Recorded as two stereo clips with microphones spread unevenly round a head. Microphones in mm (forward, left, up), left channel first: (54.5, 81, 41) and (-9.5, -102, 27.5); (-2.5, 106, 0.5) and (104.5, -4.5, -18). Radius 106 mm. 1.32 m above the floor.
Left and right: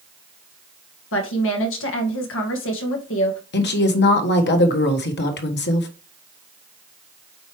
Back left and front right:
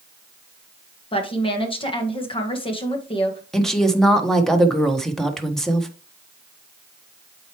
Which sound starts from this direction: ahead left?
A woman speaking, at 3.5 s.